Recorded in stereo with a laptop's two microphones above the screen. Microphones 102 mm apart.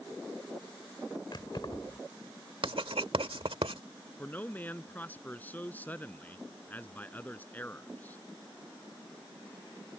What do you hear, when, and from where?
1.3 s keys jangling: 50° left (ahead or behind)
2.6 s writing: 70° right (ahead or behind)
4.2 s a man speaking: 15° left (ahead or behind)